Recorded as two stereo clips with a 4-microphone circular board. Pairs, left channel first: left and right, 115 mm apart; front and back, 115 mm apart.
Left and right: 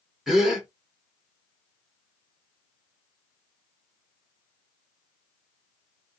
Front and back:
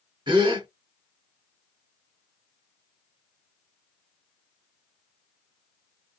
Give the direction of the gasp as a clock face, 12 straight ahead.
6 o'clock.